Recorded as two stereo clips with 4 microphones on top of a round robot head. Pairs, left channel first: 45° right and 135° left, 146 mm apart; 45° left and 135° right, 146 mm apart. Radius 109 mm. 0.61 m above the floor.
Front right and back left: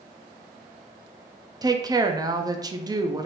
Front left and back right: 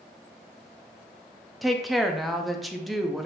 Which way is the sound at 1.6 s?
135° left.